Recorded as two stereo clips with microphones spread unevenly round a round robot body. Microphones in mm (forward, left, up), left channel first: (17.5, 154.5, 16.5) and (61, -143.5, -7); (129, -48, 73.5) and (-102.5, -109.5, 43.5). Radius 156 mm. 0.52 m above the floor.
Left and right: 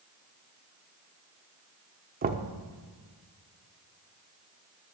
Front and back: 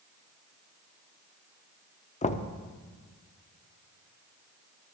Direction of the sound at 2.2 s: 40° right.